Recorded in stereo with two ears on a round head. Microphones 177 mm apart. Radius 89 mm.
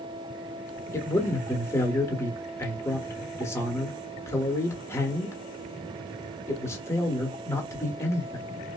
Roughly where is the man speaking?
Centre.